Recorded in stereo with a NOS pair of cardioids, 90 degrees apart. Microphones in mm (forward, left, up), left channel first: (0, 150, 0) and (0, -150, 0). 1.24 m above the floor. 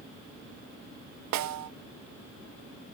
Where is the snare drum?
65° right, 0.7 m.